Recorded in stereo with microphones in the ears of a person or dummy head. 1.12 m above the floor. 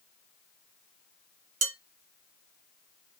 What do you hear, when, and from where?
1.6 s dishes clattering: 85° right, 1.3 m